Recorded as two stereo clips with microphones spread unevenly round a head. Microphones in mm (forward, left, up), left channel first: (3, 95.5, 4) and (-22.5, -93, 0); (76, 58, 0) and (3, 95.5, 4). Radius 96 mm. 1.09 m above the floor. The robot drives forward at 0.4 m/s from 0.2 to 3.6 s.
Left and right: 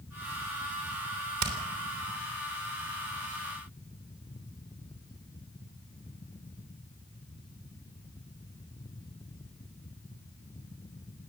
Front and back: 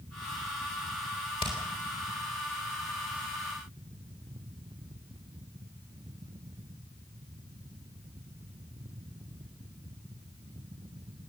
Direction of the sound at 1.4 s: 85° right.